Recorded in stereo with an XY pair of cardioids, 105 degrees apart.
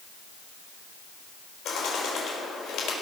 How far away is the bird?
About 4 m.